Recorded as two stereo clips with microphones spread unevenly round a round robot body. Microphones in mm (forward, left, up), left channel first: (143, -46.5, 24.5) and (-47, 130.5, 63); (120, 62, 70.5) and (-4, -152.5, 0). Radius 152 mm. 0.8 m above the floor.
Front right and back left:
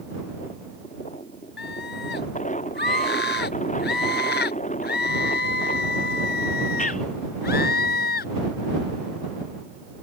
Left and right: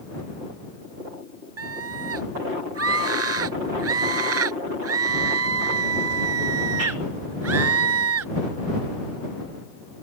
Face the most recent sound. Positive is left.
turn(degrees=-100)